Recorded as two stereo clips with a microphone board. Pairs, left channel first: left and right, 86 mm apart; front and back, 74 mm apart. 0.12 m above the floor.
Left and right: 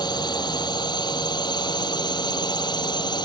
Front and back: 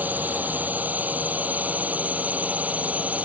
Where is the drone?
115° left; by 3.3 s 110° left.